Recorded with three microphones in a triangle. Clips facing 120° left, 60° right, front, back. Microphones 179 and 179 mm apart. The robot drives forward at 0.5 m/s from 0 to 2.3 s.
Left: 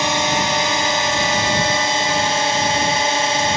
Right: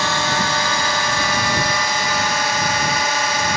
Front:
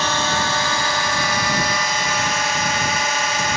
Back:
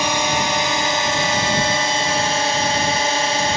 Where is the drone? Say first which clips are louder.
Left 2 dB, back 2 dB; 135° left; by 3.6 s 160° left.